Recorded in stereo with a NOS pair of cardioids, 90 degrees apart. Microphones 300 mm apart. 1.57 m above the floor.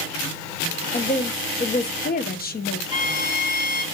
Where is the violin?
50° left, 2 m.